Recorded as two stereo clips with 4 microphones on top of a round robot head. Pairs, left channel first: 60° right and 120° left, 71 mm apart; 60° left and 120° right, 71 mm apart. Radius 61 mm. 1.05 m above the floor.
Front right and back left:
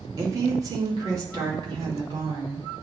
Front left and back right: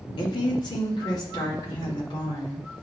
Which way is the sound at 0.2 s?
75° left.